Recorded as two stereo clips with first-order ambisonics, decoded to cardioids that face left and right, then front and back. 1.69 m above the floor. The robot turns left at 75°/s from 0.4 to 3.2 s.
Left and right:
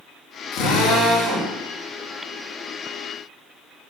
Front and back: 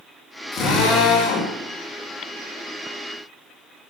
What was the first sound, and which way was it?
A drill, 75° left.